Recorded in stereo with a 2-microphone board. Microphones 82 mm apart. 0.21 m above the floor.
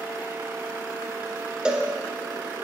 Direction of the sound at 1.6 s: 10° right (ahead or behind).